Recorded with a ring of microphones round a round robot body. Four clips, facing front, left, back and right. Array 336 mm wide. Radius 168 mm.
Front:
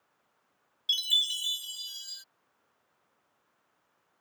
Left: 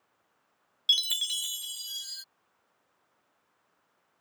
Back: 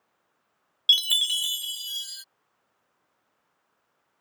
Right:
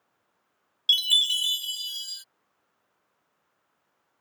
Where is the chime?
170° right.